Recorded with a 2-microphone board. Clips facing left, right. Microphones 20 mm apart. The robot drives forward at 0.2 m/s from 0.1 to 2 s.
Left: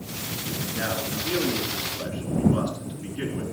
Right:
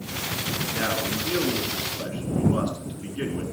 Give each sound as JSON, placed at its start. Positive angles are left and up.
{"t": 0.7, "sound": "a man speaking", "side_deg": -50, "distance_m": 4.0}